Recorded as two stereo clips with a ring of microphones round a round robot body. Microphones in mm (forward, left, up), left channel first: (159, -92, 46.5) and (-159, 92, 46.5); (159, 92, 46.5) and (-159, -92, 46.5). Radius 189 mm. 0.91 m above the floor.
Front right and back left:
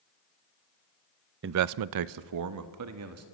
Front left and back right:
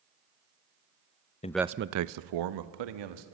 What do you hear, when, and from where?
1.4 s a man speaking: 100° left, 0.5 m; by 3.2 s 160° right, 1.8 m